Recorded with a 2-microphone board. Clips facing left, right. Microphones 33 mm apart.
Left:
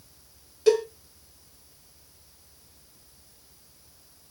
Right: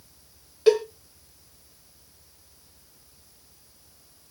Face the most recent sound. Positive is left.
turn(degrees=-25)  # may be behind; listen again after turning